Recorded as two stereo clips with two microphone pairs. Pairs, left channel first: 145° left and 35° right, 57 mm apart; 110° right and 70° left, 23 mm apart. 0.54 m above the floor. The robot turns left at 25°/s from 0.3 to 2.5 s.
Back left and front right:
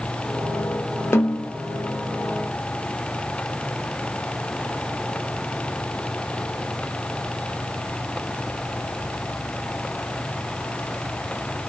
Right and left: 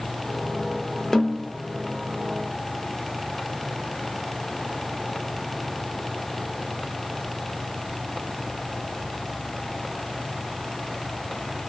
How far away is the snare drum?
About 0.5 m.